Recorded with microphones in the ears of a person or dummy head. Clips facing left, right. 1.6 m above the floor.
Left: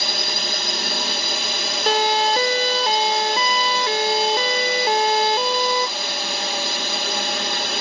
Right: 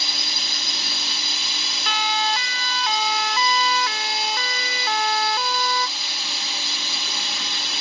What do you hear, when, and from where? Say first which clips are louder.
0.0 s a drone: left 8 dB; 50° left (ahead or behind)
1.9 s a siren: left 7 dB; 45° left (ahead or behind); by 5.9 s 30° left (ahead or behind)